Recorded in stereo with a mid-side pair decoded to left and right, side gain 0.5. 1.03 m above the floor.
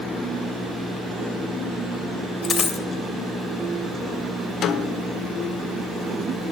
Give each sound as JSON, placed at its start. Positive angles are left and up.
{"t": 2.4, "sound": "a dropped coin", "azimuth_deg": 40, "distance_m": 2.5}
{"t": 4.6, "sound": "a snare drum", "azimuth_deg": 65, "distance_m": 1.6}